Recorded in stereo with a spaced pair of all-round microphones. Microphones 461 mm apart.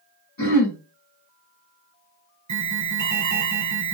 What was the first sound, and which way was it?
Throat clearing, 45° left (ahead or behind).